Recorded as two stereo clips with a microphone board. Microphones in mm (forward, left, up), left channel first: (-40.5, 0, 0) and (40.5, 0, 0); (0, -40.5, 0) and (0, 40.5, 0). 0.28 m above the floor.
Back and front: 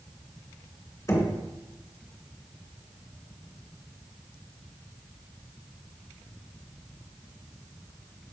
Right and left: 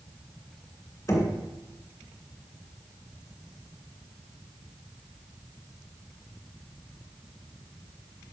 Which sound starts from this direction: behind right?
Knocking, at 1.1 s.